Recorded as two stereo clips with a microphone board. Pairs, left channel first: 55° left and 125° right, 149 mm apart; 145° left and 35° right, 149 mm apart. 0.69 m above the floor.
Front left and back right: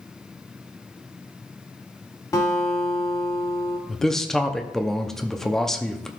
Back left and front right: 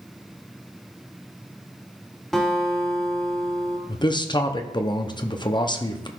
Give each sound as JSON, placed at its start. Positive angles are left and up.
{"t": 2.3, "sound": "a guitar", "azimuth_deg": 60, "distance_m": 1.2}
{"t": 3.9, "sound": "a man speaking", "azimuth_deg": 140, "distance_m": 0.5}